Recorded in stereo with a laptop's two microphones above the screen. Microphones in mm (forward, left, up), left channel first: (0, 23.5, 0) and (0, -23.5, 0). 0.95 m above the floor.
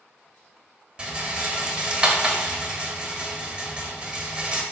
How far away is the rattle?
About 0.7 m.